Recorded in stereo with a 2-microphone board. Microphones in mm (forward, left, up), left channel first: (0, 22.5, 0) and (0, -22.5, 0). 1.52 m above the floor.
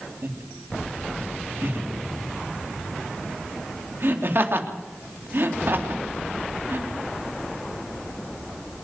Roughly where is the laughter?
Right.